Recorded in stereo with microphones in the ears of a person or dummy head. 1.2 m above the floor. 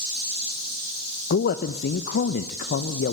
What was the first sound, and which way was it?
A man speaking, 50° left (ahead or behind).